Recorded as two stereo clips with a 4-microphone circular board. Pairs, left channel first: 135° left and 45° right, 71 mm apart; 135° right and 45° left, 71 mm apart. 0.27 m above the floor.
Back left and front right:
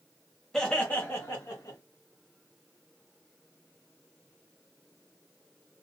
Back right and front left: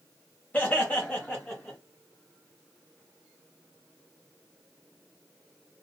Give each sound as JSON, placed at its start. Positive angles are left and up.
{"t": 0.5, "sound": "laughter", "azimuth_deg": -150, "distance_m": 1.1}